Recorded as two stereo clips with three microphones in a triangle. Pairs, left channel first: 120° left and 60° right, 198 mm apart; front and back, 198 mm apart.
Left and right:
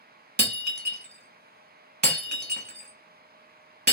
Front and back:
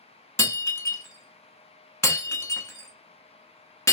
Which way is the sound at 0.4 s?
70° right.